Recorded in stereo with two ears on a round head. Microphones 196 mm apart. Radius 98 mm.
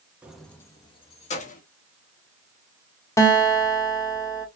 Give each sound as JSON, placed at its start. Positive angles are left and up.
{"t": 0.2, "sound": "keys jangling", "side_deg": -5, "distance_m": 0.7}
{"t": 3.2, "sound": "a guitar", "side_deg": 15, "distance_m": 0.9}